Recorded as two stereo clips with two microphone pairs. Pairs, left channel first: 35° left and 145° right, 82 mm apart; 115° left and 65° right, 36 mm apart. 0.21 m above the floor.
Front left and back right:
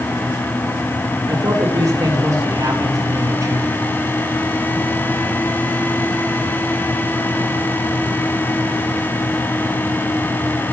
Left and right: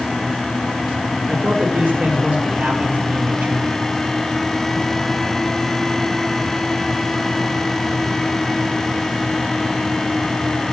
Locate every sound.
1.3 s a man speaking: 100° right, 7 m